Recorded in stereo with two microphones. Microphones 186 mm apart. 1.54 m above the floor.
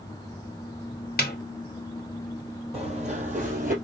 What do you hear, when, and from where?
1.2 s a snare drum: 55° left (ahead or behind), 0.7 m
2.7 s running footsteps: 35° right (ahead or behind), 2 m; by 3.7 s 50° right (ahead or behind), 2.5 m